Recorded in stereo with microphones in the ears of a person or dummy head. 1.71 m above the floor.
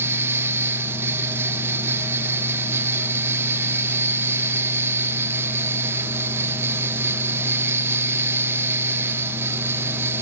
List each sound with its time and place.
0.0 s a fan: 15° right (ahead or behind), 1.2 m